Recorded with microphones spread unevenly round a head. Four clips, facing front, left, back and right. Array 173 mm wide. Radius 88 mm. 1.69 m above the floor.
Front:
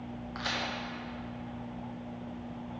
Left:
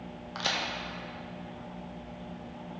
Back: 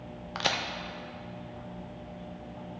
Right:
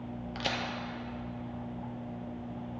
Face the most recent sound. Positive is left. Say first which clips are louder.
# left 2 dB, back 5 dB
turn(degrees=-165)